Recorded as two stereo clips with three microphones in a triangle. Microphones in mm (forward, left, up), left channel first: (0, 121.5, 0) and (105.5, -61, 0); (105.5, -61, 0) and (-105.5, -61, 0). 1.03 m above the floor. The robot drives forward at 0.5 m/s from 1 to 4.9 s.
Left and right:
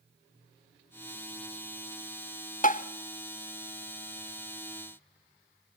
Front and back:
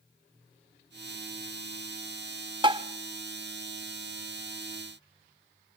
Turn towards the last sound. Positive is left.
turn(degrees=165)